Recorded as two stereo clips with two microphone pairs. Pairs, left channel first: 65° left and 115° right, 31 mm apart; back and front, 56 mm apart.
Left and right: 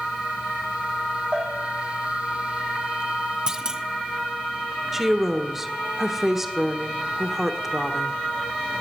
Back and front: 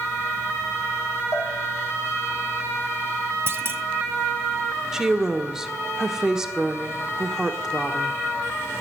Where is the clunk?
45° right, 1.1 m.